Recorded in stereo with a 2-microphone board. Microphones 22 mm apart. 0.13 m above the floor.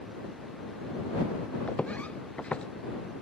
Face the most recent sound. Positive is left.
turn(degrees=55)  # may be behind; listen again after turning